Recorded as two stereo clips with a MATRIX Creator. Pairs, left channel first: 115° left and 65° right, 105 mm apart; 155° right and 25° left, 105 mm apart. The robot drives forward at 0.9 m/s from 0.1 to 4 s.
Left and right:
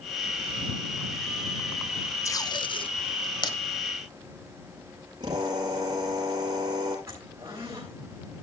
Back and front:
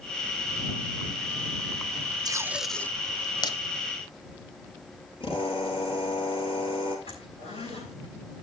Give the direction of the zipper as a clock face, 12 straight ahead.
4 o'clock.